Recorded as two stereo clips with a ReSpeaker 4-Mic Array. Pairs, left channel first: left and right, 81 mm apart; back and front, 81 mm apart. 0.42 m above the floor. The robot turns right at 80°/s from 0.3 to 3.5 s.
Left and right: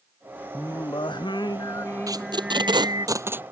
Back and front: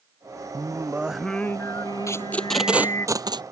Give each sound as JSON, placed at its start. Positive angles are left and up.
{"t": 0.5, "sound": "singing", "azimuth_deg": 35}
{"t": 2.1, "sound": "tape being pulled", "azimuth_deg": -130}